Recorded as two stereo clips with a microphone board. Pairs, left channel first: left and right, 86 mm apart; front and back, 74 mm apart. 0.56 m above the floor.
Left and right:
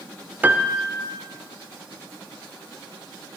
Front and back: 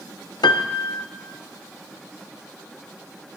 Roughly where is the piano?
Ahead.